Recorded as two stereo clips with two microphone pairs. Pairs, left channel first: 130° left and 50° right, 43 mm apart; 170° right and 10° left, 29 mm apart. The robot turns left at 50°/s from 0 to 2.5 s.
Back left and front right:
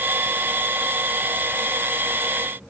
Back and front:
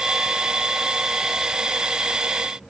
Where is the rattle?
I don't hear a rattle.